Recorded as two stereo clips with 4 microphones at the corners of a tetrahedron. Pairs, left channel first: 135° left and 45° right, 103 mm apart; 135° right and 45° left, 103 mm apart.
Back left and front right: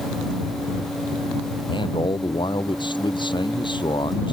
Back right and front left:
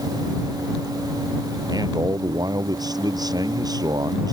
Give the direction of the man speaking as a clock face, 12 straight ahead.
9 o'clock.